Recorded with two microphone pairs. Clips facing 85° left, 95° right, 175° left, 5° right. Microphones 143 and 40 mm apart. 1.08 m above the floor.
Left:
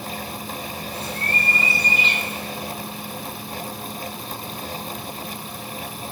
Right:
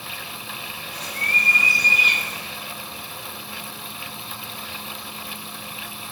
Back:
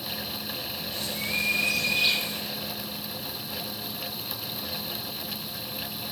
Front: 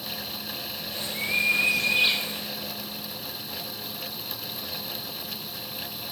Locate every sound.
0.9 s a bird: 40° left, 0.6 m